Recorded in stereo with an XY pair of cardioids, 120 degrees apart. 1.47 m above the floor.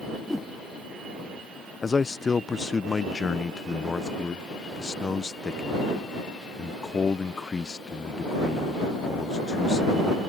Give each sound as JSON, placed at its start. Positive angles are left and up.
{"t": 0.1, "sound": "a whoosh", "azimuth_deg": 5}
{"t": 1.8, "sound": "a man speaking", "azimuth_deg": 25}